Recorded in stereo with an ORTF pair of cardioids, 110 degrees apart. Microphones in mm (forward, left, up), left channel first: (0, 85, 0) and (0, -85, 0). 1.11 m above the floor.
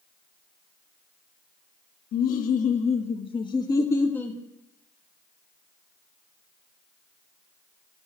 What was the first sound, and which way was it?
Laughter, 65° left.